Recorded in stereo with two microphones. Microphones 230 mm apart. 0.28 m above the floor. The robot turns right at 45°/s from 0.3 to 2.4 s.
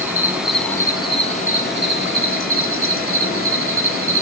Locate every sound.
0.0 s an insect: 10° right, 1.0 m; by 4.2 s 85° left, 1.0 m